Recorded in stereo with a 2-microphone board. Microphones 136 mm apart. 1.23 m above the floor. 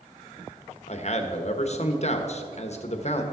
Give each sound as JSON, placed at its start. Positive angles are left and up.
{"t": 0.9, "sound": "a man speaking", "side_deg": 50, "distance_m": 1.1}